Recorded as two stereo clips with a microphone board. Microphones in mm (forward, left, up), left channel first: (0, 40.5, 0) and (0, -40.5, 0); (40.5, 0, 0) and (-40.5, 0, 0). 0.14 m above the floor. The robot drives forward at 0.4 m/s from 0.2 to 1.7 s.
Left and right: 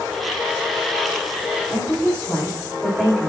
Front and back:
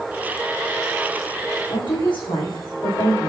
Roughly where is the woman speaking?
Ahead.